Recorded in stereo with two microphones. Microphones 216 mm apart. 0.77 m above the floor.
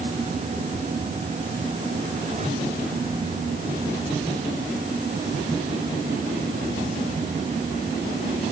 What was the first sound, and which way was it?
Only background noise.